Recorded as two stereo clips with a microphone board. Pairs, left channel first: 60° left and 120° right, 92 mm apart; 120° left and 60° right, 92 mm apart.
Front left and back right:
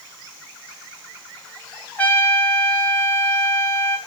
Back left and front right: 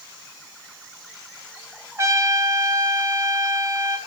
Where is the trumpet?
10° right, 3 m.